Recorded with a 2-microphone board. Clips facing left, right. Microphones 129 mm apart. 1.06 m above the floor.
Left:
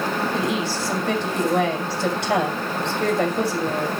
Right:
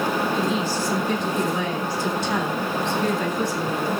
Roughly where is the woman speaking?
Left.